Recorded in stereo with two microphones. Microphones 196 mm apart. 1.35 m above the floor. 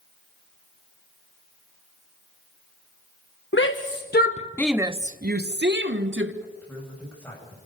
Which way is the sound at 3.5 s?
70° left (ahead or behind).